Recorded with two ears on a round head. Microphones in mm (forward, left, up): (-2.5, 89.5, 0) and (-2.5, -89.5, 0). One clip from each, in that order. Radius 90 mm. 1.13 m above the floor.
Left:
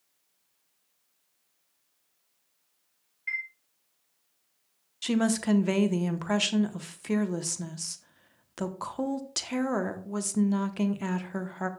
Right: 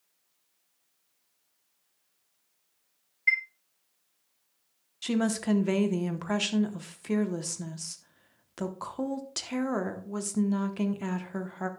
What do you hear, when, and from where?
3.3 s a chime: 35° right (ahead or behind), 1.4 m
5.0 s a woman speaking: 10° left (ahead or behind), 0.8 m